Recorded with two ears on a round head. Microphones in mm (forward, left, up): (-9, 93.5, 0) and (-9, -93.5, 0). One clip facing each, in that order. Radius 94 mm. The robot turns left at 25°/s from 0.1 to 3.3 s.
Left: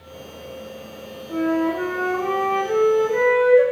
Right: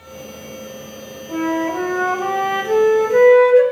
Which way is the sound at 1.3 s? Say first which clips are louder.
Even; 70° right.